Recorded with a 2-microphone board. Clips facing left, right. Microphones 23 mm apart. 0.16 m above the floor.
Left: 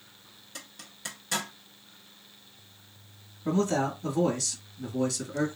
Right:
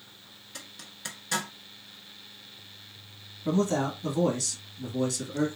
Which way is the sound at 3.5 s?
Centre (ahead or behind).